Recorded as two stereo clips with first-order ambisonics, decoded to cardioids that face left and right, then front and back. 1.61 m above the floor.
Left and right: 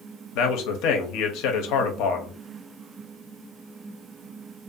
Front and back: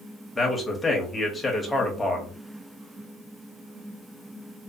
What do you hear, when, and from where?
0.3 s a man speaking: 85° left, 0.6 m